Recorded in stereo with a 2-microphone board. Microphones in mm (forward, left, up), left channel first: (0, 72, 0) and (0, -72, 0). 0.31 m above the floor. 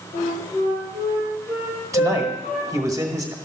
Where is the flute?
60° left (ahead or behind), 5.5 m.